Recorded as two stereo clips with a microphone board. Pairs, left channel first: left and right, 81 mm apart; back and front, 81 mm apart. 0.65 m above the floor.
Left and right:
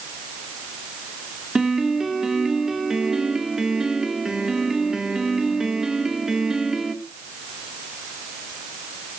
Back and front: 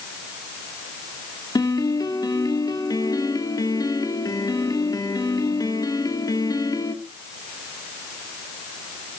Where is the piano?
170° right, 1.6 m.